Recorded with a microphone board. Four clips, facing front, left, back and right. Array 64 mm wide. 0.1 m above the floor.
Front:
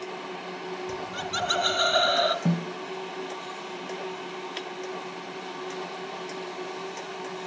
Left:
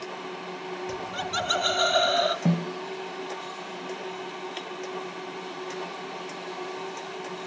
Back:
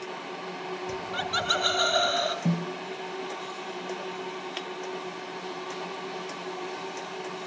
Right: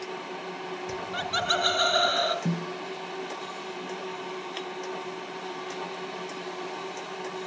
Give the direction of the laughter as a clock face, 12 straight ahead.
5 o'clock.